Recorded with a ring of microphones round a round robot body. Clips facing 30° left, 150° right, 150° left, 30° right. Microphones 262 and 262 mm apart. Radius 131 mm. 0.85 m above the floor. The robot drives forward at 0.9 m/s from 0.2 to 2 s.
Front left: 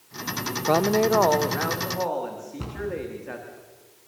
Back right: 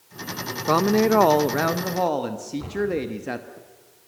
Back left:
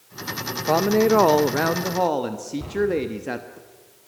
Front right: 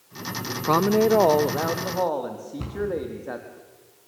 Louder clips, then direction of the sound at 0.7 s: Back right 2 dB, back left 1 dB; 65° right.